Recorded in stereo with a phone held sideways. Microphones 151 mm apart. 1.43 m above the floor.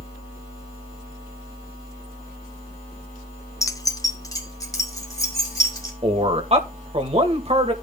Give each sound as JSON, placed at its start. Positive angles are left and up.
{"t": 3.6, "sound": "keys jangling", "side_deg": 20, "distance_m": 0.6}
{"t": 6.0, "sound": "a man speaking", "side_deg": -45, "distance_m": 1.7}